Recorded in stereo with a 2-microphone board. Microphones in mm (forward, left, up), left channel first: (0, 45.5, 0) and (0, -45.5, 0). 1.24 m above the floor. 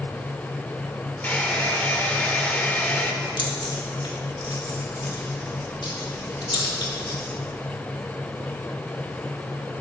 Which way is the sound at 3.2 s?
65° left (ahead or behind).